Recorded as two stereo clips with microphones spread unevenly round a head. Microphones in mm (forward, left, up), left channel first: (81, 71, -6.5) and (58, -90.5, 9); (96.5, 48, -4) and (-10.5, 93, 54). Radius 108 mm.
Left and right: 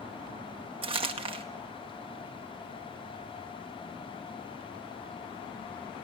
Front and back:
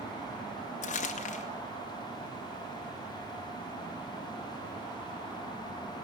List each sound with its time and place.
0.8 s crumpling: 45° right, 2 m